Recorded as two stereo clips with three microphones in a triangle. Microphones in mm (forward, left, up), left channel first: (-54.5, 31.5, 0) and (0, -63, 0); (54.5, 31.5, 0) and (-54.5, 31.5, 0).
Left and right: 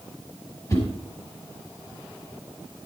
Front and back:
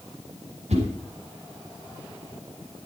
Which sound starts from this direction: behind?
A whoosh, at 0.7 s.